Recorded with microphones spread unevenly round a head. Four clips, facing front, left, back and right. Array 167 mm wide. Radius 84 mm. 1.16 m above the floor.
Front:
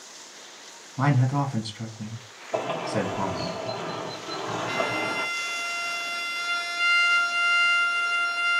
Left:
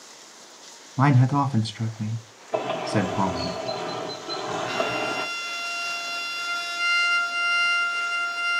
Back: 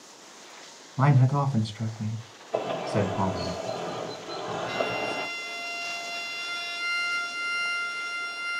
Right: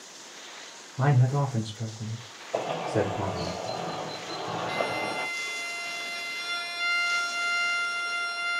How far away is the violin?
About 3.5 m.